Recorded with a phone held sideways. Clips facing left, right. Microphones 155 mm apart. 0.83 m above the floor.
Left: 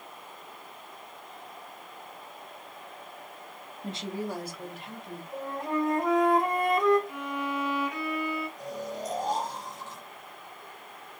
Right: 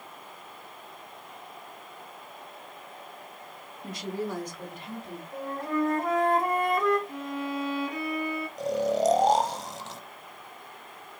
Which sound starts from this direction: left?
A woman speaking, at 3.8 s.